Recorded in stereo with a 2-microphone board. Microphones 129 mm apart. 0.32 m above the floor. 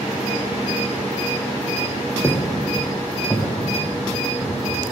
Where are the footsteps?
15° left (ahead or behind), 1.3 m; by 4.9 s 10° right (ahead or behind), 3 m.